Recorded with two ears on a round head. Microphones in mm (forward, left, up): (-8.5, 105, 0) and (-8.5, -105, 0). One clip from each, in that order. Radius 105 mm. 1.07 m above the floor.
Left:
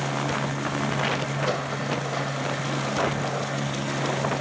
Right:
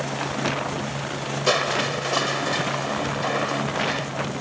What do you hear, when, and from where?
1.5 s crushing: 80° right